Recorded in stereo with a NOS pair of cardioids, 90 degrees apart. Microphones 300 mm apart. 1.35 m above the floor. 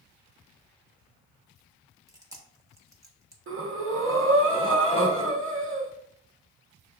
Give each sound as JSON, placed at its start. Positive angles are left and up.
{"t": 2.1, "sound": "chewing", "azimuth_deg": -10, "distance_m": 1.1}
{"t": 3.5, "sound": "breathing", "azimuth_deg": -45, "distance_m": 1.2}